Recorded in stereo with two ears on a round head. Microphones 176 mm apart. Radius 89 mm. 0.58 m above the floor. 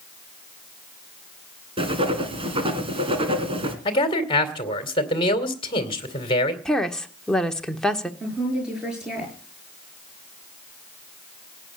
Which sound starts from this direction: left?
A man speaking, at 3.9 s.